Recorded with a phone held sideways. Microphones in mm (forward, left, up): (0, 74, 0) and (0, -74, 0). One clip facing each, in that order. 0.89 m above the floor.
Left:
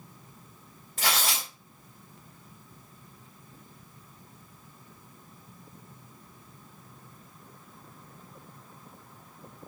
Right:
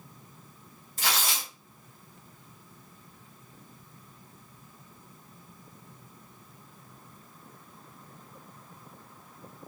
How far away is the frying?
No frying in this recording.